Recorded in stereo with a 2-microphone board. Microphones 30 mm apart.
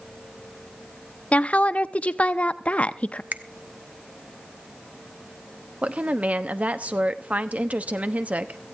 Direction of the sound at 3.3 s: 60° right (ahead or behind).